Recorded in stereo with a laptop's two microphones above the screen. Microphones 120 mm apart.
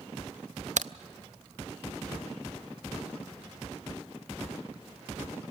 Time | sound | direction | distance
0.8 | a crack | 85° right | 0.5 m